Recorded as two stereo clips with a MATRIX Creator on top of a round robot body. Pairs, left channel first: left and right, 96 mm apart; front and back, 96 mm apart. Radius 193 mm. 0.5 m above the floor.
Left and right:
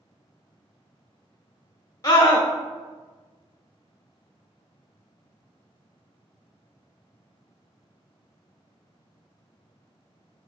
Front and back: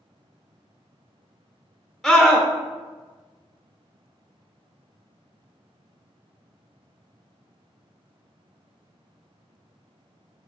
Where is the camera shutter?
I don't hear a camera shutter.